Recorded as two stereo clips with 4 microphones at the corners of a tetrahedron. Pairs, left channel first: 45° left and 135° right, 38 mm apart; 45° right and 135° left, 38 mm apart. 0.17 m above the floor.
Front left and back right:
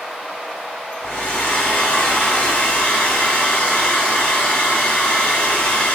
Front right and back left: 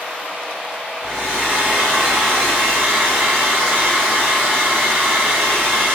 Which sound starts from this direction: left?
A hair dryer, at 1.0 s.